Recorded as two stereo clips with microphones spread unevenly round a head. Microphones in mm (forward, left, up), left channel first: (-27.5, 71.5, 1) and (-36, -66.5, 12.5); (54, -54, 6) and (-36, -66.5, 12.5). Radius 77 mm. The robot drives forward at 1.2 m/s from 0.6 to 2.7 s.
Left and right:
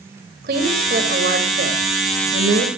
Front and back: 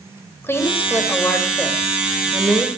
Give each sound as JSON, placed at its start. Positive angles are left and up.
{"t": 0.4, "sound": "a woman speaking", "azimuth_deg": -60, "distance_m": 6.0}